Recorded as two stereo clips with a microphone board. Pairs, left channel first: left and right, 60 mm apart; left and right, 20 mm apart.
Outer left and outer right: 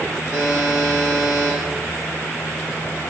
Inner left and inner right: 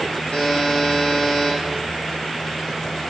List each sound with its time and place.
0.3 s a buzzer: 80° left, 1.0 m